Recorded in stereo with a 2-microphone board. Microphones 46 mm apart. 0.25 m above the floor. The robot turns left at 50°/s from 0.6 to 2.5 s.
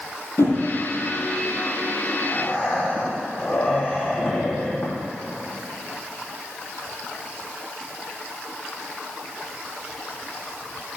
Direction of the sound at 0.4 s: 80° left.